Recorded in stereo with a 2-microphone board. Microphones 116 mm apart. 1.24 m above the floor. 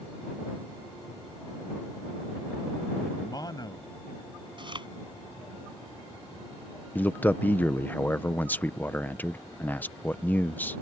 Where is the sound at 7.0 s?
15° left (ahead or behind).